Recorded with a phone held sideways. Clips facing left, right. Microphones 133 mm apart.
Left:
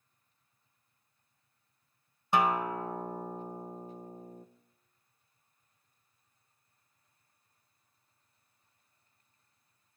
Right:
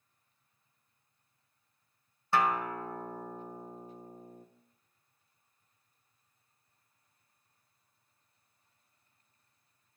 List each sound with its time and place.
2.3 s a guitar: 20° left (ahead or behind), 0.6 m